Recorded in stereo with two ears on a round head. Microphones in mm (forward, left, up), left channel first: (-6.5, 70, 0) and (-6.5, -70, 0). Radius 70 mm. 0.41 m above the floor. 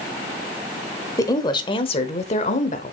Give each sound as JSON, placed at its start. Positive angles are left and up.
{"t": 1.2, "sound": "a woman speaking", "side_deg": 20, "distance_m": 1.3}